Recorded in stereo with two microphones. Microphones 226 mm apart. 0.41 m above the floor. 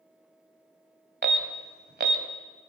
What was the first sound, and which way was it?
An alarm, 50° right (ahead or behind).